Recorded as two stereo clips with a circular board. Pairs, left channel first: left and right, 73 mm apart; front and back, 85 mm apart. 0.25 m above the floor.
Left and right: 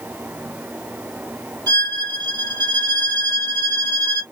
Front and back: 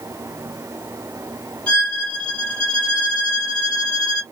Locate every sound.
1.7 s a violin: 80° right, 2 m